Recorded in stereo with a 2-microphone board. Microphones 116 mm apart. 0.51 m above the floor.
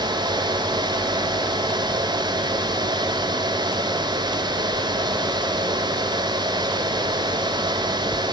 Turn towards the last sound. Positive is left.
No sound to turn to.